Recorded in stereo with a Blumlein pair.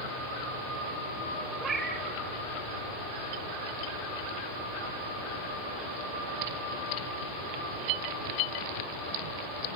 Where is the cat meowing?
20° right, 3.5 m.